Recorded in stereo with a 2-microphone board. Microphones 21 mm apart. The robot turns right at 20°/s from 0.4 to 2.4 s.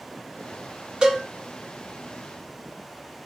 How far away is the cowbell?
About 2 m.